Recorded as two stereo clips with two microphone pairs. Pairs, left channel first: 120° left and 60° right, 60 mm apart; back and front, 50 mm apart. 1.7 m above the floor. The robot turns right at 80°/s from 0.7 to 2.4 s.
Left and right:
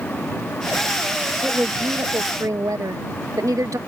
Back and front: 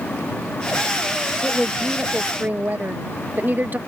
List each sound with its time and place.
1.4 s a woman speaking: 130° right; by 3.8 s 50° right